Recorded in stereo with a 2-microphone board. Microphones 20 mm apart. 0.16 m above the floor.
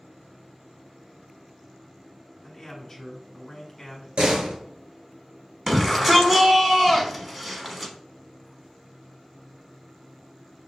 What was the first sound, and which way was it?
A man speaking, 10° left (ahead or behind).